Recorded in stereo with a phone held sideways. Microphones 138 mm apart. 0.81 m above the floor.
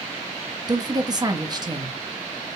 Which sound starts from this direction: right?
A woman speaking, at 0.7 s.